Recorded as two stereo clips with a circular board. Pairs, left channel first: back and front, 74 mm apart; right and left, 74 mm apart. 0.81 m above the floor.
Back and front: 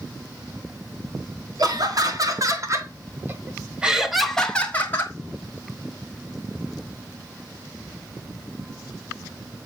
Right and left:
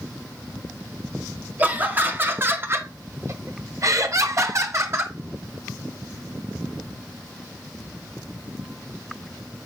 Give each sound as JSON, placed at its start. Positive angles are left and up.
{"t": 1.6, "sound": "laughter", "azimuth_deg": 25, "distance_m": 2.0}